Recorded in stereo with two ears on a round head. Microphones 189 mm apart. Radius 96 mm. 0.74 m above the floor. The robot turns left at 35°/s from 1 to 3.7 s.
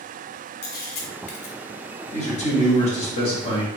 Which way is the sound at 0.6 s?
45° left (ahead or behind).